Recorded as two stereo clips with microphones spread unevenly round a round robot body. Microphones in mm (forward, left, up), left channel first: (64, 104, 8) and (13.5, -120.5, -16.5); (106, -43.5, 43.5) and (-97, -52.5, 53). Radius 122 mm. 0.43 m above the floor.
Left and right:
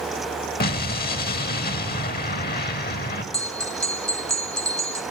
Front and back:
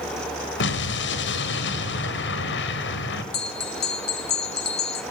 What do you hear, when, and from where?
0.6 s an explosion: 25° left, 1.6 m
3.3 s a bell: 15° right, 1.6 m